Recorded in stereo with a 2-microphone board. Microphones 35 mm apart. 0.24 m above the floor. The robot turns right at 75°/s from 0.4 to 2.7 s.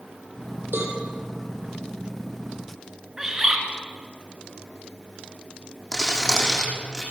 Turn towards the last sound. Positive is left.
turn(degrees=20)  # may be behind; listen again after turning